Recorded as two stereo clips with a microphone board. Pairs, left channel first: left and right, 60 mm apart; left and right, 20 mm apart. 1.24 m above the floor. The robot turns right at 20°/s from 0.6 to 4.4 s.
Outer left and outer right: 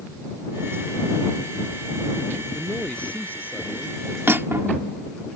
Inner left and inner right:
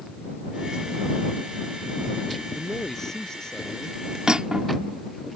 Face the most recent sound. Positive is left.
turn(degrees=-40)  # may be behind; listen again after turning